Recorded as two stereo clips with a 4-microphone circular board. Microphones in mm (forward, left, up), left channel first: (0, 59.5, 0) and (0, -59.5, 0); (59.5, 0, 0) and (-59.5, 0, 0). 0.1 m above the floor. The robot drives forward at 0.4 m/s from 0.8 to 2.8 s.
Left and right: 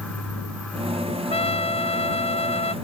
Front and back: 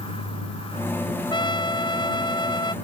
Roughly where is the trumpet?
Ahead left.